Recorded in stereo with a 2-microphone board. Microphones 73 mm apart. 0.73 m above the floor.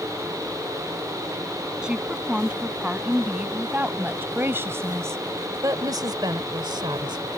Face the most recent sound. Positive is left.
turn(degrees=-80)